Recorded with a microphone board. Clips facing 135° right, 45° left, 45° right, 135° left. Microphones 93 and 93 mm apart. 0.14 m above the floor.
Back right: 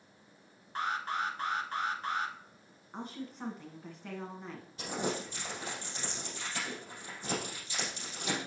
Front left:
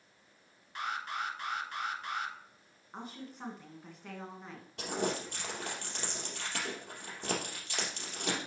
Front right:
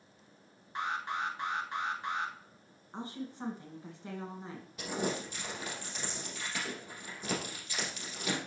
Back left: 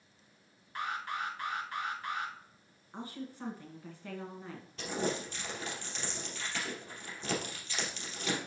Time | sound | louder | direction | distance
0.8 | an alarm | back right 3 dB, front right 2 dB | 105° right | 1.1 m
2.9 | a woman speaking | back right 3 dB, front right 2 dB | 40° right | 1.4 m
4.8 | crumpling | front left 1 dB, even | 35° left | 3 m